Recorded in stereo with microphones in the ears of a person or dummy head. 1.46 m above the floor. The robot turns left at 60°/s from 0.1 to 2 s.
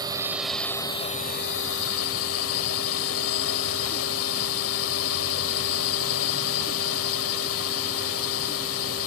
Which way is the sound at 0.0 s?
150° right.